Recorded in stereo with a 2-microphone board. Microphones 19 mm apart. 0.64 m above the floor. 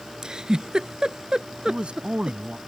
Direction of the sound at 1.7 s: 80° right.